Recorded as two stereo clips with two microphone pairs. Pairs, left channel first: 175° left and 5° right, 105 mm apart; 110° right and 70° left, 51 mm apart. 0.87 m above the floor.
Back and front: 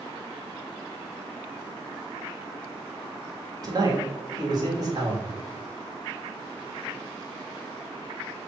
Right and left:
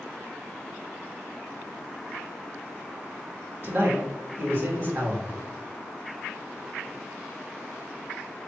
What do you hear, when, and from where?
3.6 s a man speaking: 35° left, 1.6 m